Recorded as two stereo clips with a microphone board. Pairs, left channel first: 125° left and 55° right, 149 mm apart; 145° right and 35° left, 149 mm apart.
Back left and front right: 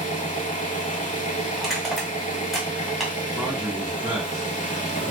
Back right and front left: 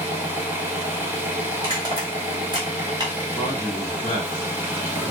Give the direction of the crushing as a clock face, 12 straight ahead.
11 o'clock.